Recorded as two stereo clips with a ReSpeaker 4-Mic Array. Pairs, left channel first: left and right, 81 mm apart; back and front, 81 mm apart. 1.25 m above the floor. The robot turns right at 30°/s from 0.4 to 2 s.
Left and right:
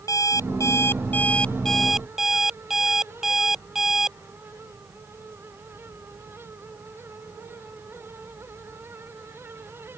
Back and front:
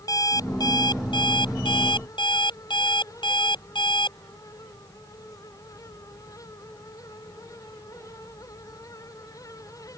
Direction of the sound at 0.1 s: 135° left.